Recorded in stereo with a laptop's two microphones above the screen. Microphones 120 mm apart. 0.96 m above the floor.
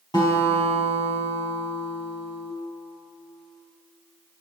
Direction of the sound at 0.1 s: 40° left (ahead or behind).